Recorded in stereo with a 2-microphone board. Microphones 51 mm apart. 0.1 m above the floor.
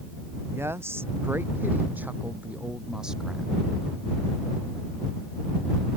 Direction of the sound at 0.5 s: 60° right (ahead or behind).